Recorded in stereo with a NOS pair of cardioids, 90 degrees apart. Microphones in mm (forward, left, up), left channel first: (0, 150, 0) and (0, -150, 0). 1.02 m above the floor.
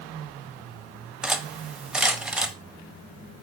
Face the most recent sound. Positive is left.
turn(degrees=-5)